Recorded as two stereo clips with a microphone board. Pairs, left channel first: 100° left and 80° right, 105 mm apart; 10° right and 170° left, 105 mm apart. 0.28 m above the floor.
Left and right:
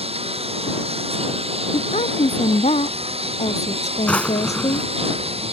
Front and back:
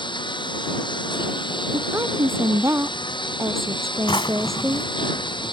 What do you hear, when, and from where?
0.0 s a lawn mower: 55° right
1.7 s a woman speaking: 105° left
4.1 s a drawer: 25° left